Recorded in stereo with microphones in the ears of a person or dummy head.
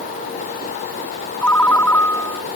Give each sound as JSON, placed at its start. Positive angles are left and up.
{"t": 1.4, "sound": "a ringtone", "side_deg": 25}